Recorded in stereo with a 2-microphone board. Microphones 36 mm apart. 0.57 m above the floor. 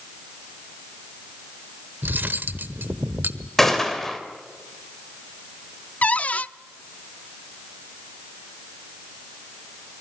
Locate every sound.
2.0 s cutlery clinking: 65° right (ahead or behind), 1.1 m
3.6 s a gunshot: 10° left (ahead or behind), 3 m
6.0 s a cupboard door: 40° left (ahead or behind), 0.5 m